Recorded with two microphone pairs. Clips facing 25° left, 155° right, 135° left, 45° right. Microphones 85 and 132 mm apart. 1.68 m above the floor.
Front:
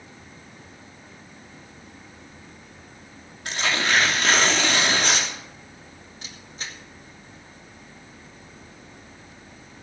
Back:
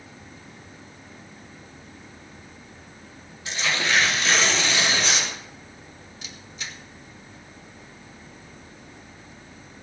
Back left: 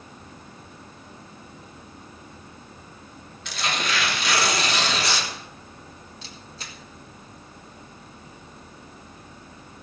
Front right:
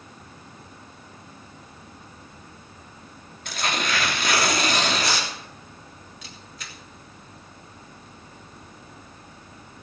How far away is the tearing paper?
About 3 m.